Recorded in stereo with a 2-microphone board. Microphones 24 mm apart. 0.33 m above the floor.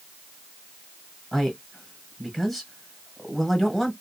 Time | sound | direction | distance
1.3 | a man speaking | 15° left (ahead or behind) | 1.7 m